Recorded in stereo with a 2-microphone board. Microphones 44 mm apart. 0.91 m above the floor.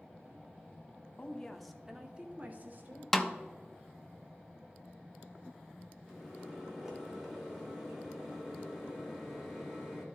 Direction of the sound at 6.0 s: 5° right (ahead or behind).